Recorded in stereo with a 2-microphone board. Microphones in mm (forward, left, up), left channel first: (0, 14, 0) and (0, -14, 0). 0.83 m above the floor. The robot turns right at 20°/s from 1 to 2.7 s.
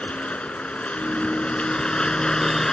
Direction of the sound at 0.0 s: 130° left.